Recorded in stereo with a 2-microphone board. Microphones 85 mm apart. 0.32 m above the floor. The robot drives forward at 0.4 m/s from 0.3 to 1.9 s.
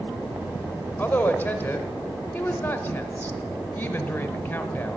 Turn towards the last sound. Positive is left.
turn(degrees=20)  # may be behind; listen again after turning